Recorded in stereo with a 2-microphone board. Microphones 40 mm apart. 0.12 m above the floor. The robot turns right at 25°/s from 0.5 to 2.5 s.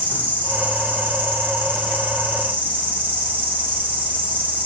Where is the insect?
125° right, 1.8 m; by 4.7 s 75° right, 1.8 m.